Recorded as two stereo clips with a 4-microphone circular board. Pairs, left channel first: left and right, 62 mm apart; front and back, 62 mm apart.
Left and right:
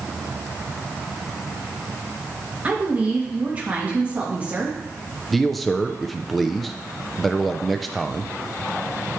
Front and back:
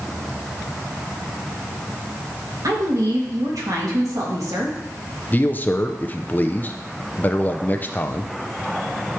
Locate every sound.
2.6 s a woman speaking: 155° right, 2.5 m
5.3 s a man speaking: straight ahead, 0.6 m